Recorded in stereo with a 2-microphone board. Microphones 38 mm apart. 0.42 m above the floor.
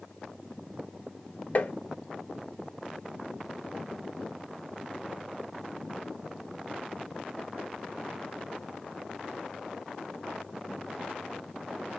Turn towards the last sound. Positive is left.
turn(degrees=45)  # may be behind; listen again after turning